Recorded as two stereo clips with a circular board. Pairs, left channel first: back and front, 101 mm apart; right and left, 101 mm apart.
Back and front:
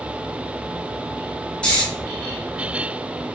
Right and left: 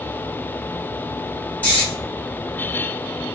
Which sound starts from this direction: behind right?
Snoring, at 1.6 s.